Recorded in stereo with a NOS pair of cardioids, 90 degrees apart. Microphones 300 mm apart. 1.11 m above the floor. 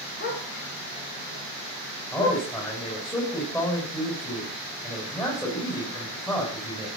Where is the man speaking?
10° left, 8.5 m.